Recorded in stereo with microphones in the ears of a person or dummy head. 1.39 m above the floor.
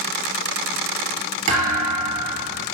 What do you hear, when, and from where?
1.5 s a thud: 50° right (ahead or behind), 3.5 m